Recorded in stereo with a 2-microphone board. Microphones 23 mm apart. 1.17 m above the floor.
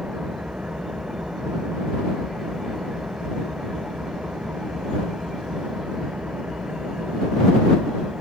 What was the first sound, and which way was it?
An engine running, 65° right (ahead or behind).